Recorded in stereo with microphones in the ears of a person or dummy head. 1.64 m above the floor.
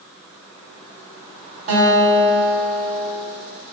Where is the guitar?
45° right (ahead or behind), 0.9 m.